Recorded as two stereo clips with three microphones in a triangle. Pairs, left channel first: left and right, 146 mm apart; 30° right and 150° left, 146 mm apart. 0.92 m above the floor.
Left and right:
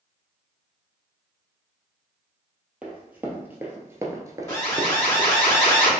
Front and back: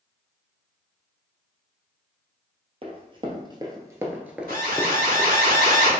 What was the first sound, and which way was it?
Running footsteps, 170° right.